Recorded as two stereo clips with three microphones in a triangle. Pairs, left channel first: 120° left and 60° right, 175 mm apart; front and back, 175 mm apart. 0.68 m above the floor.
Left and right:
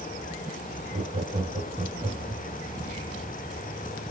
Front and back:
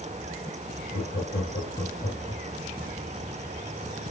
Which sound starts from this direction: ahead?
Laughter, at 0.9 s.